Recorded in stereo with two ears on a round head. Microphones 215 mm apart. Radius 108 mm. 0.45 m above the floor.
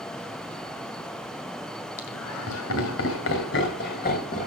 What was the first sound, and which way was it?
Laughter, 70° left (ahead or behind).